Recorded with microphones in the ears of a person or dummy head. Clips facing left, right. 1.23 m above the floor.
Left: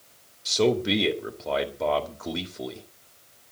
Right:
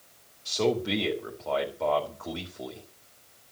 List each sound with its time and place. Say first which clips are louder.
0.5 s a man speaking: left 4 dB; 20° left (ahead or behind), 2.5 m